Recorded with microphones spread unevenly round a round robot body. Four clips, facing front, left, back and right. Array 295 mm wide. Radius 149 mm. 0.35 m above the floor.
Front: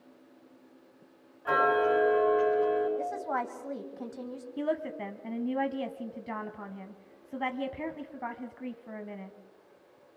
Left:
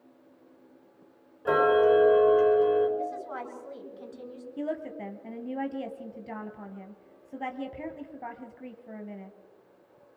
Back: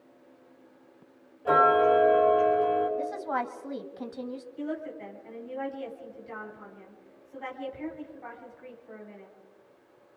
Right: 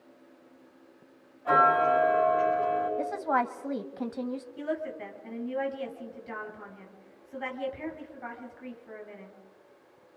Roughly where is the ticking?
Left.